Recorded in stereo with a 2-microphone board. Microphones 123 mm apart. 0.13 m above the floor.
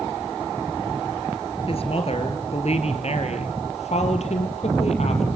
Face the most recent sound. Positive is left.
turn(degrees=60)  # may be behind; listen again after turning